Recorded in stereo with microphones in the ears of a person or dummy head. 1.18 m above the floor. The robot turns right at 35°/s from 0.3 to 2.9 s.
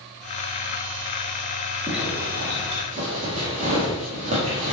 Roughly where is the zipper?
Centre.